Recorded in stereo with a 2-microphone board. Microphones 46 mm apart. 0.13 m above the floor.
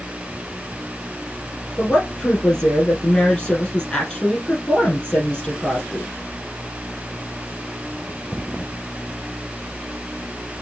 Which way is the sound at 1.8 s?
25° left (ahead or behind).